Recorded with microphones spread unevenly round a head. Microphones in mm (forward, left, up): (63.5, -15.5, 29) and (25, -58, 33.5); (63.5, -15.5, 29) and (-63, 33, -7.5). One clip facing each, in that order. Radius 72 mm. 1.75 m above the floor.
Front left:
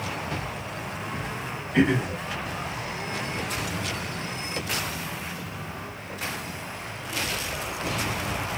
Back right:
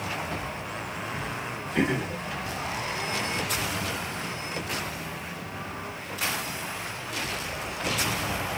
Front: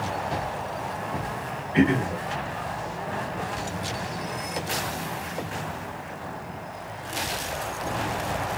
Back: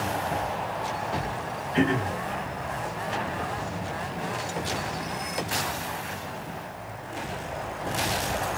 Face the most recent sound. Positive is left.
turn(degrees=50)